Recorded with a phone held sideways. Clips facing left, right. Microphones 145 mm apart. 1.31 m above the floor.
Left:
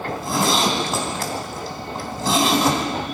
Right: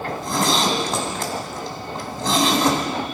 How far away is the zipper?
About 3 m.